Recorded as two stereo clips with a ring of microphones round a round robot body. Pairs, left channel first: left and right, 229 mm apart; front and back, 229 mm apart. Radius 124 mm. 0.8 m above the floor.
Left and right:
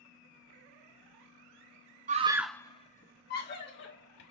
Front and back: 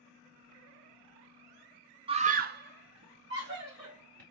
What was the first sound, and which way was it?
A scream, 125° right.